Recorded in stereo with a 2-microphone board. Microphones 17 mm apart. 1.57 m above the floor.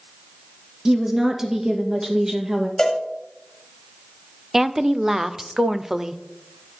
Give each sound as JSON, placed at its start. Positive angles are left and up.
{"t": 0.8, "sound": "a woman speaking", "side_deg": -30, "distance_m": 1.8}
{"t": 2.8, "sound": "a cowbell", "side_deg": 50, "distance_m": 2.0}
{"t": 4.5, "sound": "a woman speaking", "side_deg": -25, "distance_m": 0.5}